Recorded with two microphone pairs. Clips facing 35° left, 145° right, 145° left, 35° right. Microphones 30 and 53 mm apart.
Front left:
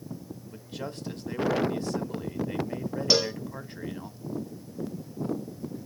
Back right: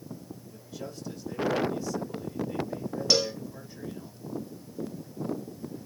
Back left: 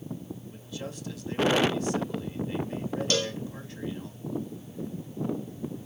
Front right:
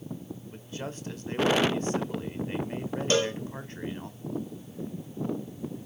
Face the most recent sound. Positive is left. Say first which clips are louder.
# front left 1 dB, front right 5 dB
turn(degrees=-15)